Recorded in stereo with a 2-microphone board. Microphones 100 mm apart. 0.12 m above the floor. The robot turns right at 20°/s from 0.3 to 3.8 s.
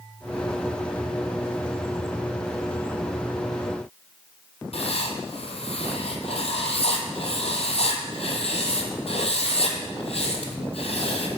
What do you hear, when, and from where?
4.7 s writing: 70° left (ahead or behind), 0.8 m